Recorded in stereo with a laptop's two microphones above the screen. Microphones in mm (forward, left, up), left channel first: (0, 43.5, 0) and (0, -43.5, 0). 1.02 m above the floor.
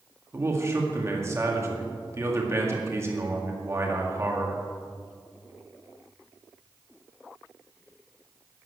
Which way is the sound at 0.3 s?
30° right (ahead or behind).